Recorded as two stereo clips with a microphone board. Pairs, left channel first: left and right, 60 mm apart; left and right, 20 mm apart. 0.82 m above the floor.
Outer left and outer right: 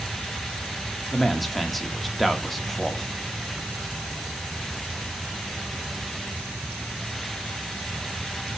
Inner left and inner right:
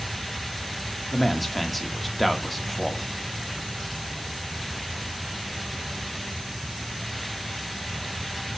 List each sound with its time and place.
1.1 s a man speaking: 5° left (ahead or behind), 1.7 m